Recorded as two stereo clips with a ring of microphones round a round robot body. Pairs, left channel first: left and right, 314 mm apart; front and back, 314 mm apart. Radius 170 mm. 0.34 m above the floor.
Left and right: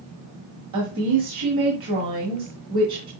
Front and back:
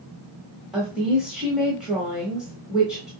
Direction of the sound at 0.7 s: 90° right.